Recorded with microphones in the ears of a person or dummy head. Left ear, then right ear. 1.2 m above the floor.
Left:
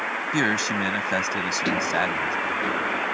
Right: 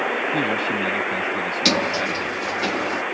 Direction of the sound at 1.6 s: 70° right (ahead or behind).